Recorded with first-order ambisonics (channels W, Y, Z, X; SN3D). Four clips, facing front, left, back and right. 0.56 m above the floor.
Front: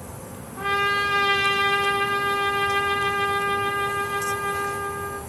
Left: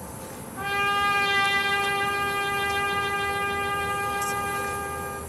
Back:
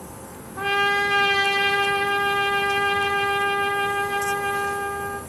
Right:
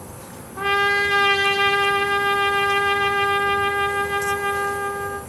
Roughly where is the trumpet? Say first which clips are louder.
Right 5 dB, back 1 dB; right.